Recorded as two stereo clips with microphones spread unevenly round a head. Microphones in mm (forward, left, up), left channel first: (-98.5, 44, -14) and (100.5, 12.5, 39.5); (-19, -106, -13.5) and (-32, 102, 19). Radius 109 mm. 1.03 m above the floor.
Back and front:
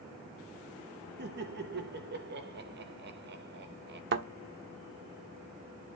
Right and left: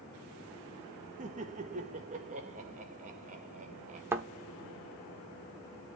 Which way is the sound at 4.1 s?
15° left.